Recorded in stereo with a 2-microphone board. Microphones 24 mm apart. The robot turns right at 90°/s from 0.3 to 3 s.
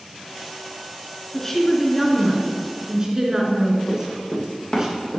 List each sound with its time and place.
1.3 s a woman speaking: 15° left (ahead or behind), 1.7 m; by 4.9 s 25° right (ahead or behind), 1.7 m
3.9 s running footsteps: 45° left (ahead or behind), 3.5 m; by 5.2 s 30° left (ahead or behind), 3 m